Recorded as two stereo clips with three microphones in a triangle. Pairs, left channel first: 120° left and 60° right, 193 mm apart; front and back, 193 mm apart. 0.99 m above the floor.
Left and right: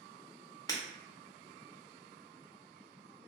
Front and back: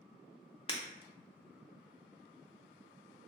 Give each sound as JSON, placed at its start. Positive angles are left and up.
{"t": 0.7, "sound": "breaking glass", "azimuth_deg": 55, "distance_m": 0.7}